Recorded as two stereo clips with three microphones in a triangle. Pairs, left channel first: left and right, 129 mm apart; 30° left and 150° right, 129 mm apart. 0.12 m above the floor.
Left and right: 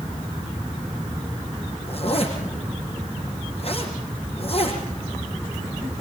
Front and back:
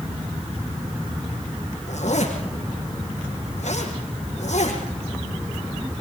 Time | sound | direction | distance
1.9 | a zipper | 50° left | 6 m